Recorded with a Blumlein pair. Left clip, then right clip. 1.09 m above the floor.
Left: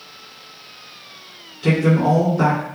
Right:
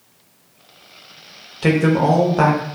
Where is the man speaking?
45° right, 0.8 m.